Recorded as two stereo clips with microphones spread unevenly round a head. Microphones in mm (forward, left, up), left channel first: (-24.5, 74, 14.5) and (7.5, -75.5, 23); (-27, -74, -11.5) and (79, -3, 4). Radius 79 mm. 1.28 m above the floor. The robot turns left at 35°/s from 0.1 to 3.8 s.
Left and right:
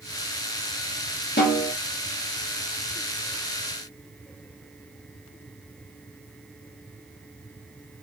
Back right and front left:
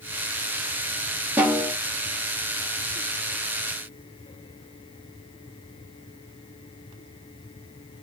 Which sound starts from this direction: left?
A snare drum, at 1.4 s.